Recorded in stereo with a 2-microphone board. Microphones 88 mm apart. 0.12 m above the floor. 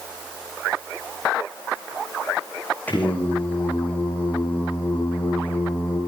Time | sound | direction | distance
2.9 | singing | 15° left (ahead or behind) | 9 m